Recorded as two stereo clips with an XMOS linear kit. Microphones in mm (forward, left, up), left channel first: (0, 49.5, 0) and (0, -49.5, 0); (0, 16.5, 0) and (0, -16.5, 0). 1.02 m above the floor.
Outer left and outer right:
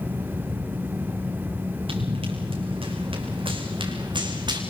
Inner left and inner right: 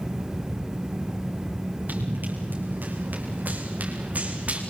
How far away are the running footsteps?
About 5 m.